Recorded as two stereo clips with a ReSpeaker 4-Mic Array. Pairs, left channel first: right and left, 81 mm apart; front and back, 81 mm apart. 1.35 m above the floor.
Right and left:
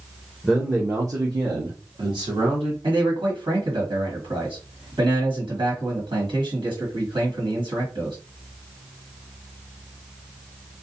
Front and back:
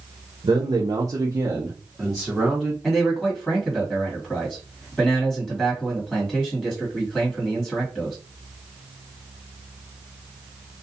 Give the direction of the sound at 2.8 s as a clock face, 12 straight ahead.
9 o'clock.